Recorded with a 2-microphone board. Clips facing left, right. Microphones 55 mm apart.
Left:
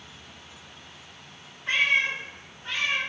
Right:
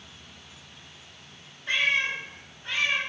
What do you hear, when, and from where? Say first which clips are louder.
1.7 s a cat meowing: left 2 dB; 40° left (ahead or behind), 1.1 m; by 3.0 s 15° right (ahead or behind), 1.2 m